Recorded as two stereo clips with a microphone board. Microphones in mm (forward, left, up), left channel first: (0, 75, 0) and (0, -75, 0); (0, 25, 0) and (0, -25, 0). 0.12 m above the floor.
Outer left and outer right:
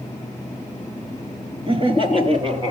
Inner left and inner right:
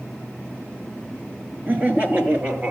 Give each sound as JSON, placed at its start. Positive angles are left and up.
{"t": 1.7, "sound": "laughter", "side_deg": -35, "distance_m": 1.8}